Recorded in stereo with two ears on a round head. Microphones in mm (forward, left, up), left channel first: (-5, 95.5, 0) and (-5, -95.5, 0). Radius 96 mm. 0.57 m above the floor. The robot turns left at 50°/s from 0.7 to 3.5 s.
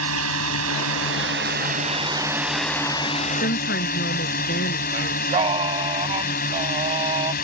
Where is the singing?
25° right (ahead or behind).